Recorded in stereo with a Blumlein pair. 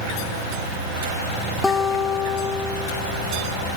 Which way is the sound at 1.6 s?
10° left.